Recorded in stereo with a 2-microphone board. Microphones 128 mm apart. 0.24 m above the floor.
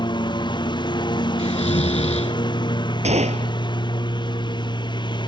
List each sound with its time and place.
0.0 s a lawn mower: 35° left (ahead or behind)
1.4 s snoring: 60° left (ahead or behind)
3.0 s a gunshot: 60° right (ahead or behind)